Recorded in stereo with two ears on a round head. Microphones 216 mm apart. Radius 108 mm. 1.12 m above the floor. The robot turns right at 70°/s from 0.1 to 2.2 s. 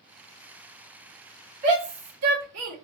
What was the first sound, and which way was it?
A shout, 35° right (ahead or behind).